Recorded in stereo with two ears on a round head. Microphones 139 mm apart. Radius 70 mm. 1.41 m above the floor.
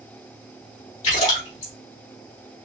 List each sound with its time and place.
1.0 s a splash: 45° left (ahead or behind), 2.5 m